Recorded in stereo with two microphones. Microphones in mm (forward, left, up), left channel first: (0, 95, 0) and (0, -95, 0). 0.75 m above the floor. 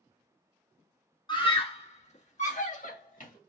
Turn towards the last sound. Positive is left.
turn(degrees=45)  # may be behind; listen again after turning